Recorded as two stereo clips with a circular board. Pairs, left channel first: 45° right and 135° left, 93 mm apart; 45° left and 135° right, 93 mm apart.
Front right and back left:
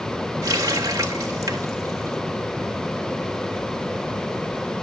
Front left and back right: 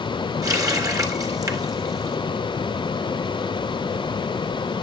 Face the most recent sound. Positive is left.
turn(degrees=180)